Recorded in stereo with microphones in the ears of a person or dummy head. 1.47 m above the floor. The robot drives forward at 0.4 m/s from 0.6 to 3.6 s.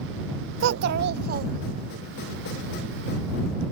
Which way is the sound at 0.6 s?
65° right (ahead or behind).